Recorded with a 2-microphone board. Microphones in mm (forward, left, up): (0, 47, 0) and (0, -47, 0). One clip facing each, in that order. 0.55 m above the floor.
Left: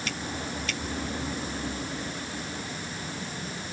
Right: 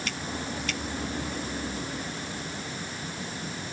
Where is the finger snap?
I don't hear a finger snap.